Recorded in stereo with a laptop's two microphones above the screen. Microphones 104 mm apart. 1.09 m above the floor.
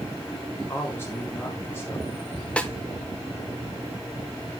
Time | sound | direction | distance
0.6 | a man speaking | 20° left (ahead or behind) | 2 m
2.6 | a snare drum | 10° left (ahead or behind) | 0.6 m